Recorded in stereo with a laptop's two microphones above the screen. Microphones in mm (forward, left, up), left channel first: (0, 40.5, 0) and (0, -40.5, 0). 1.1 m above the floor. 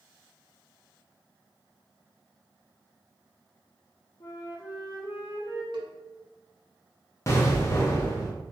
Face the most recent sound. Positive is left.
turn(degrees=35)  # may be behind; listen again after turning